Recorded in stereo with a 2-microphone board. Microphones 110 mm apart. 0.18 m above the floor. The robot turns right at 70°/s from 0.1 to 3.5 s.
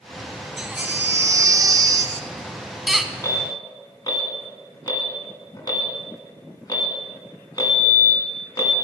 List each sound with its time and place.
0.6 s a baby crying: 170° right, 0.5 m; by 3.1 s 10° left, 0.5 m
3.2 s an alarm: 25° left (ahead or behind), 1.8 m; by 8.8 s 35° left (ahead or behind), 1.8 m